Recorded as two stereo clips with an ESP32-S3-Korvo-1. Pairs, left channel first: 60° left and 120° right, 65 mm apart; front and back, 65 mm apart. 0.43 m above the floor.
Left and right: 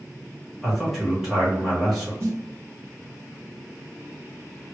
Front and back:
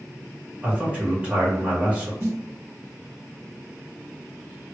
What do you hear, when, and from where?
0.6 s a man speaking: 160° left, 1.5 m
2.2 s a snare drum: 150° right, 1.7 m